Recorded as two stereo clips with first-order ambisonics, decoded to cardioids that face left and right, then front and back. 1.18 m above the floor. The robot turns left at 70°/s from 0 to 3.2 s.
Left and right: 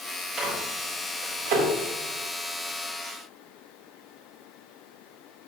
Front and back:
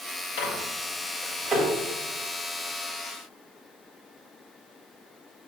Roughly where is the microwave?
Ahead.